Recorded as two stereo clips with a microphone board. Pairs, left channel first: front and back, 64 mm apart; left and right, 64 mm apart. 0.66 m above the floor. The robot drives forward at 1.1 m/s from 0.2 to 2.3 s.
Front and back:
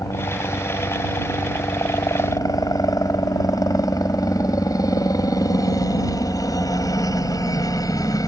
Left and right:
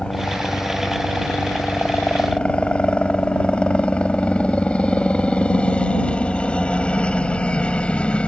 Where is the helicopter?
15° left.